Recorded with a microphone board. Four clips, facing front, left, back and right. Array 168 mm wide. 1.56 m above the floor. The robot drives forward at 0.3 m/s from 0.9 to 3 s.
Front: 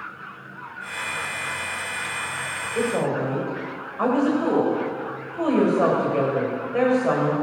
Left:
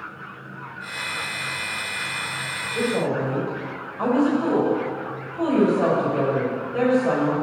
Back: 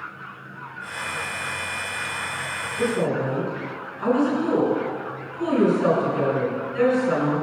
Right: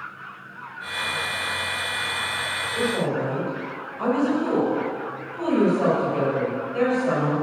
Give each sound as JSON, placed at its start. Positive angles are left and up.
{"t": 2.8, "sound": "a woman speaking", "azimuth_deg": 15, "distance_m": 7.5}